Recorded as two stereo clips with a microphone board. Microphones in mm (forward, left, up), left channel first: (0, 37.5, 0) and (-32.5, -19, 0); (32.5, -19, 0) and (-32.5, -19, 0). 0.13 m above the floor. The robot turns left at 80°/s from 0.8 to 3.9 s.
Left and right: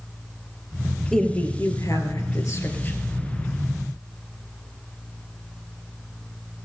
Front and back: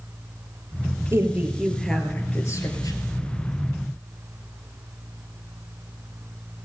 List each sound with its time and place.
1.1 s a woman speaking: 145° left, 2 m; by 3.0 s 5° right, 2 m